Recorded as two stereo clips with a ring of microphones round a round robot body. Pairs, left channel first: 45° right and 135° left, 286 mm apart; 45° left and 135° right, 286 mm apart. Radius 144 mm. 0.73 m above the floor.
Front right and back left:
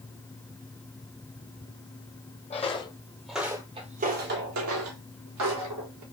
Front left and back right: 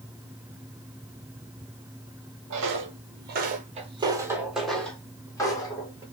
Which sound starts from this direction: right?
Footsteps, at 2.5 s.